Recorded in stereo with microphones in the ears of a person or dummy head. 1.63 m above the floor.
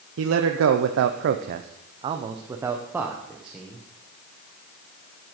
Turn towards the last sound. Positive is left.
turn(degrees=0)  # may be behind; listen again after turning